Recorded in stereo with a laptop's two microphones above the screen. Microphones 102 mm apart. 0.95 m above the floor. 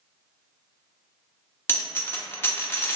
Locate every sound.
1.7 s a dropped coin: 20° left (ahead or behind), 0.8 m